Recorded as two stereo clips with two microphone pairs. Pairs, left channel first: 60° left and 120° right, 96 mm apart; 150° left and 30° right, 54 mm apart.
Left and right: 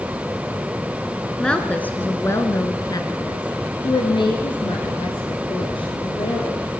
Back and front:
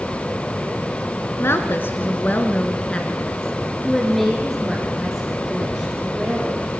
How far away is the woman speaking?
About 1.6 m.